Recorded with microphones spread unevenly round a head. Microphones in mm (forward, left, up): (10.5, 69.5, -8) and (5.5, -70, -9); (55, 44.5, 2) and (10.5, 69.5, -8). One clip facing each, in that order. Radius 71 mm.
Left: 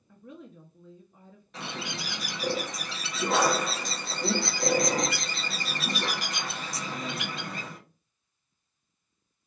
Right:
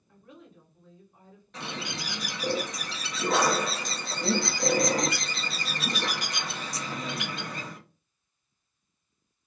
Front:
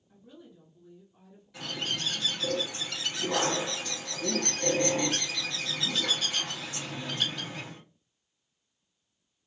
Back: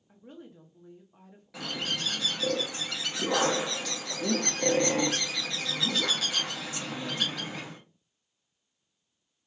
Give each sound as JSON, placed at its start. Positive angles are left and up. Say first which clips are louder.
{"t": 0.1, "sound": "a woman speaking", "louder": "left 5 dB, back 4 dB", "azimuth_deg": 105, "distance_m": 0.6}
{"t": 1.5, "sound": "a bird", "louder": "even, back 1 dB", "azimuth_deg": 175, "distance_m": 0.7}